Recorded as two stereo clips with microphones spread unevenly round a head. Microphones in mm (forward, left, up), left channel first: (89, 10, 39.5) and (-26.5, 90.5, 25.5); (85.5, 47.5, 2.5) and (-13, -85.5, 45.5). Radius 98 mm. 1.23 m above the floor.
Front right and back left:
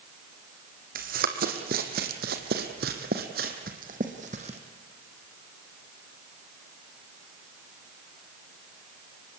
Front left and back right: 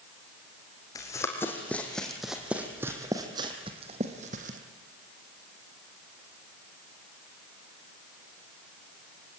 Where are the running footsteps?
135° left, 2.5 m; by 4.6 s 155° right, 2.5 m.